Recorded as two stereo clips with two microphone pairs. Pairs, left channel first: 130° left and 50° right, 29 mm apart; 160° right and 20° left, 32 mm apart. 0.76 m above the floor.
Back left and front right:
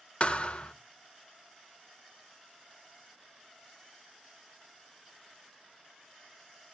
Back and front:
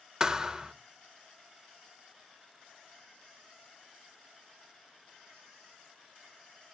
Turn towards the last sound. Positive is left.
turn(degrees=85)